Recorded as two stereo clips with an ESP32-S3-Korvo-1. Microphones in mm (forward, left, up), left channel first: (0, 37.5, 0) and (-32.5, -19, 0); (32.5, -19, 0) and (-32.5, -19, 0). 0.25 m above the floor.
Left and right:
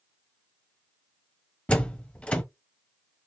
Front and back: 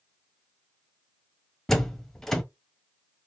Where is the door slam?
70° left, 0.8 m.